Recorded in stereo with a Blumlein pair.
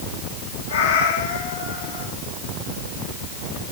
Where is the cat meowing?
60° left, 10 m.